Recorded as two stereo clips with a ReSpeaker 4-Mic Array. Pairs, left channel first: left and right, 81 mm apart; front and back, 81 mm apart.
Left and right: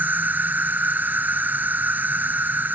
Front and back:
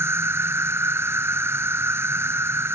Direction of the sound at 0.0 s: 145° right.